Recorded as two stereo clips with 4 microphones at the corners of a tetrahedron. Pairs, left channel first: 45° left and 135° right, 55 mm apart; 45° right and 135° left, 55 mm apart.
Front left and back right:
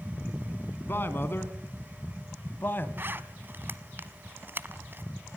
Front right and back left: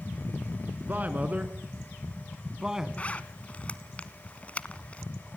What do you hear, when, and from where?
0.8 s a man speaking: 85° left, 3 m; by 2.9 s 60° left, 1.9 m
3.0 s a zipper: 100° right, 1.1 m